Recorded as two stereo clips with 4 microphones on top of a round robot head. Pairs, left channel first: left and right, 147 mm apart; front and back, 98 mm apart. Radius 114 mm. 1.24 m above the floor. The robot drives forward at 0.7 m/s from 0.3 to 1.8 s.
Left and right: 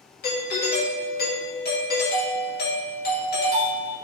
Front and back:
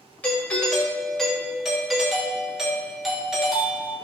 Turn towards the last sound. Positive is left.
turn(degrees=90)